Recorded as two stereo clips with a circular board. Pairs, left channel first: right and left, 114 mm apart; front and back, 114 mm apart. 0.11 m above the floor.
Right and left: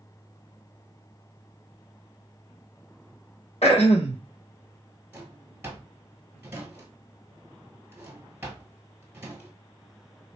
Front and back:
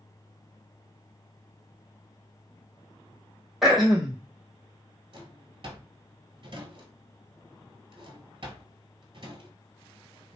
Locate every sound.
3.6 s throat clearing: 90° right, 0.9 m
5.1 s a drawer: 155° left, 1.1 m